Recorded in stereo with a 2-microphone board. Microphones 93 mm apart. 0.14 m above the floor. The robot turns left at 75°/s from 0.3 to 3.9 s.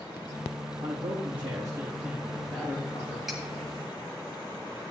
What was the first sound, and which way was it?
A man speaking, 70° right.